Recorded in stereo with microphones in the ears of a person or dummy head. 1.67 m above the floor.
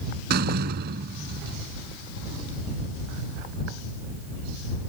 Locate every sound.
0.3 s a door slam: 45° right (ahead or behind)